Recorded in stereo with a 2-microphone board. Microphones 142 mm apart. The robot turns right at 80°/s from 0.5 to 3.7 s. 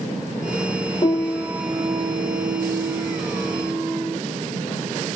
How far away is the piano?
About 1.1 m.